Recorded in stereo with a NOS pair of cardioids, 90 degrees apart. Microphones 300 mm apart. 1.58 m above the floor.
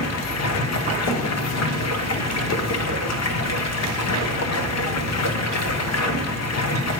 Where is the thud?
70° left, 3 m.